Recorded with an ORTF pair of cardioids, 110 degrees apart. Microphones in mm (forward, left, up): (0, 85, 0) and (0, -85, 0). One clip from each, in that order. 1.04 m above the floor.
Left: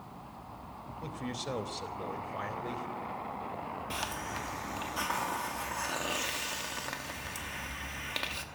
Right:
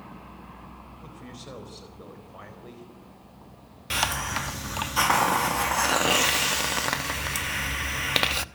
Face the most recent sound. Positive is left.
turn(degrees=-60)